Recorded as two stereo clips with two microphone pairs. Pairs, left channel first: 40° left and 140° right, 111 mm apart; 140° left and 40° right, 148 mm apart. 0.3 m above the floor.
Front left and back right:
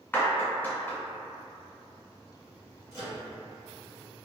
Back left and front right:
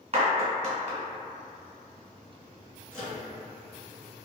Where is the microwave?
60° left, 1.6 m.